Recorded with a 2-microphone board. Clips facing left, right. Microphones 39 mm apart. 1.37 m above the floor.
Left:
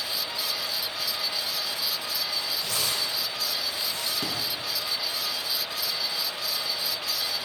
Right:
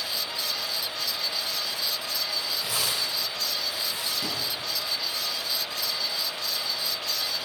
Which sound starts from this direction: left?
A thud, at 4.2 s.